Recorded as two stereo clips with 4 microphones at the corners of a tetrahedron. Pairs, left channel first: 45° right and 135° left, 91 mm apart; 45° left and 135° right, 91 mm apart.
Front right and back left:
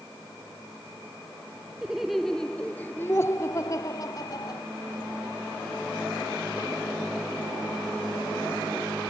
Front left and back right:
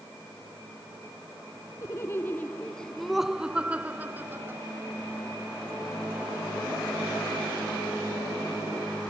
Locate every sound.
1.8 s laughter: 60° left; by 4.6 s 75° right